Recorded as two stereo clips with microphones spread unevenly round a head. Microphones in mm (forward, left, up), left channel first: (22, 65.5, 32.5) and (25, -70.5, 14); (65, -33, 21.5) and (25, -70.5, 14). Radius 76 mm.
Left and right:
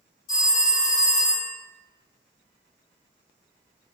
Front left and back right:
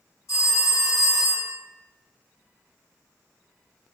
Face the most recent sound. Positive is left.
turn(degrees=90)